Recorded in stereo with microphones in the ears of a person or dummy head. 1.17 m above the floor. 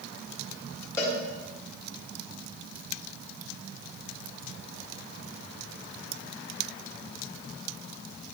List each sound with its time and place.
1.0 s a cowbell: 20° left (ahead or behind), 1.8 m